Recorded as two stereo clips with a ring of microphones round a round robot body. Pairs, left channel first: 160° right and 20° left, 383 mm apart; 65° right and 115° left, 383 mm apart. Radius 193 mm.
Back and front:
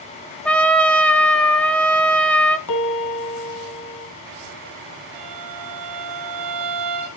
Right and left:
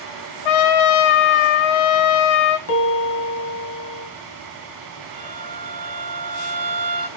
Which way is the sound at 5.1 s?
45° left.